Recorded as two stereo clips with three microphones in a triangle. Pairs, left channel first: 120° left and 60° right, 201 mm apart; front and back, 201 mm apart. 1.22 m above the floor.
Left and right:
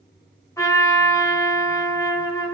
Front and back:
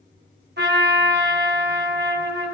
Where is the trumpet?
165° right, 1.0 m.